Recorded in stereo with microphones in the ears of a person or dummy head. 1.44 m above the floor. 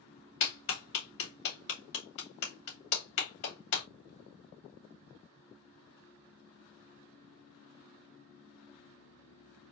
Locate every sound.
0.4 s a clap: 65° left (ahead or behind), 2.5 m